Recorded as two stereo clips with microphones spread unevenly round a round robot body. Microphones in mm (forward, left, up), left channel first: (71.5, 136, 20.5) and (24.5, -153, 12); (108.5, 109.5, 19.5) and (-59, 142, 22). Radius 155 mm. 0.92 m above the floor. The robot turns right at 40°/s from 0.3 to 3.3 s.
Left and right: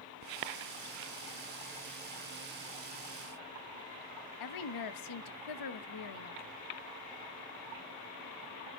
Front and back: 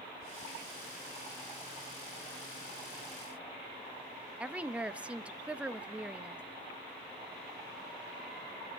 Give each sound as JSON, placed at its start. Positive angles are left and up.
{"t": 4.4, "sound": "a woman speaking", "azimuth_deg": 85, "distance_m": 1.1}